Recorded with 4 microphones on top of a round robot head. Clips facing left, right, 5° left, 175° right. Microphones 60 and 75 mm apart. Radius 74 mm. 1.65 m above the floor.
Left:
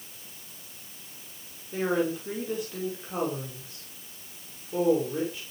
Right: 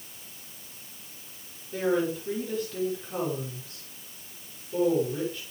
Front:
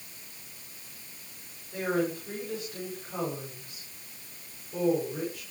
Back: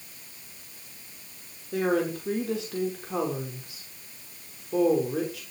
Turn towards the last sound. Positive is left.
turn(degrees=170)